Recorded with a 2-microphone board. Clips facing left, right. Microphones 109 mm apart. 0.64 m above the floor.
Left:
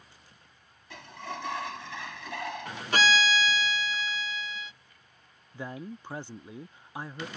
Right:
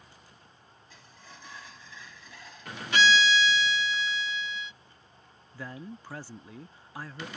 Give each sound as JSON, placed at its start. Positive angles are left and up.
{"t": 0.9, "sound": "a sliding door", "side_deg": 75}
{"t": 2.9, "sound": "a violin", "side_deg": 40}
{"t": 5.5, "sound": "a man speaking", "side_deg": 20}